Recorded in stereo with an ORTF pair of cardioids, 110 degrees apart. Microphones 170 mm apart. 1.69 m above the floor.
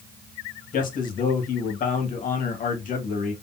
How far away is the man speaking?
About 1.9 m.